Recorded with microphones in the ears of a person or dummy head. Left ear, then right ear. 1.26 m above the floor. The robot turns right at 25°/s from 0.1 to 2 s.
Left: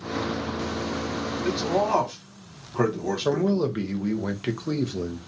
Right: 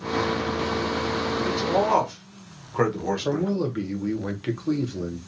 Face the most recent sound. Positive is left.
turn(degrees=15)  # may be behind; listen again after turning